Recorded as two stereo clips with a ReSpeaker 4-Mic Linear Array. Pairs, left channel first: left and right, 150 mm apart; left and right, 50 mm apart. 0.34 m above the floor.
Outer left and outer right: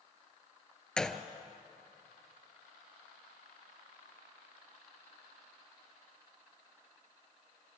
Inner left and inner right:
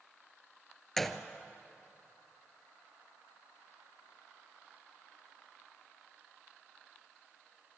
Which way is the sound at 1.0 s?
5° left (ahead or behind).